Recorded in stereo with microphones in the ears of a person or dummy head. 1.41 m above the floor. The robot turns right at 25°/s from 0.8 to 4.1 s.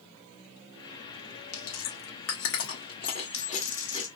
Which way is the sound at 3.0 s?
65° left (ahead or behind).